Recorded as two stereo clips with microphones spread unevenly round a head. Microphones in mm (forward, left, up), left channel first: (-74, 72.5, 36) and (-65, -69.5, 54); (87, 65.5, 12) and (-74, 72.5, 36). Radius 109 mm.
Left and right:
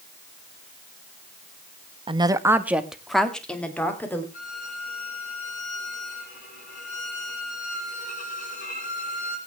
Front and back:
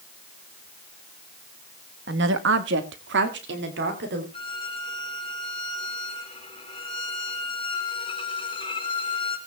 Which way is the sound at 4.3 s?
55° left.